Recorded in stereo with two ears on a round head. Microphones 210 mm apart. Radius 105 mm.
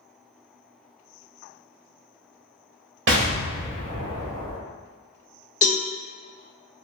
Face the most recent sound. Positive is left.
turn(degrees=35)  # may be behind; listen again after turning